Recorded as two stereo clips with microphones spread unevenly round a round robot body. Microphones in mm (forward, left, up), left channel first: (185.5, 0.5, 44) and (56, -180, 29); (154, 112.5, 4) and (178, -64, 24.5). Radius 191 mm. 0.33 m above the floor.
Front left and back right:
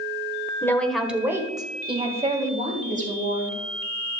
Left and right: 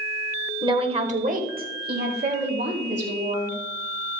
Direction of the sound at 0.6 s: 25° right.